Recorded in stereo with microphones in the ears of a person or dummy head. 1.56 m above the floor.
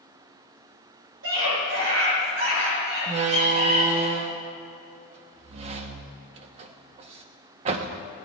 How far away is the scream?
About 6.5 m.